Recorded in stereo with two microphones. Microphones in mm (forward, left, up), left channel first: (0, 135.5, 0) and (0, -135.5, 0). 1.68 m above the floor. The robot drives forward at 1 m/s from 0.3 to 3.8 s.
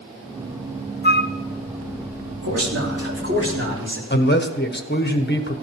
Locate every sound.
1.0 s a flute: 35° left (ahead or behind), 0.6 m
2.4 s a man speaking: 60° right (ahead or behind), 3 m; by 4.0 s 45° right (ahead or behind), 4 m
4.1 s a man speaking: 35° left (ahead or behind), 1.3 m